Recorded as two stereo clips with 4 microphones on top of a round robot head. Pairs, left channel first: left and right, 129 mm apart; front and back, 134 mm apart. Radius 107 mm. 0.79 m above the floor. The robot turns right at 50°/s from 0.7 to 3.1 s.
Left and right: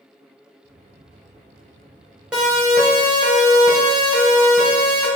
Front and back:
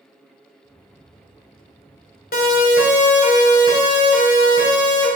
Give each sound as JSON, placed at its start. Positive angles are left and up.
{"t": 2.3, "sound": "a siren", "azimuth_deg": -5, "distance_m": 4.5}